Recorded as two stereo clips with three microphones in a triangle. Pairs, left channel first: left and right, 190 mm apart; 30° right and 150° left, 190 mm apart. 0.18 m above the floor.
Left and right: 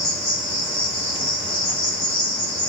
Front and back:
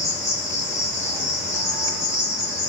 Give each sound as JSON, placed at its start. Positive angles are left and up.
{"t": 0.0, "sound": "an insect", "azimuth_deg": 115, "distance_m": 1.0}